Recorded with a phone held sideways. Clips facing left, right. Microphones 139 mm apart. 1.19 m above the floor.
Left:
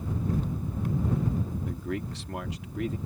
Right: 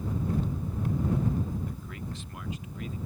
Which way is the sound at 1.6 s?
80° left.